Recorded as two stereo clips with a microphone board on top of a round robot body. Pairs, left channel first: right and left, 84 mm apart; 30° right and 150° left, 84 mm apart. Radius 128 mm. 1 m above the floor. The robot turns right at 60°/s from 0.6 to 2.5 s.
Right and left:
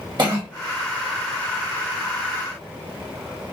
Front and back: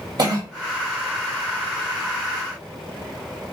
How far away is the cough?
About 1.0 m.